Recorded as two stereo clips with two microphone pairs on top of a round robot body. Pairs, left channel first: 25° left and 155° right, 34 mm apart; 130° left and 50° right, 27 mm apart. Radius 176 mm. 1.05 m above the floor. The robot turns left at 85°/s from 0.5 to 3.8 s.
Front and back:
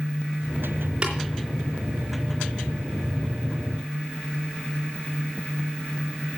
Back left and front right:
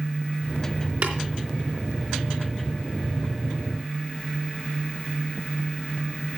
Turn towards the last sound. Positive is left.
turn(degrees=40)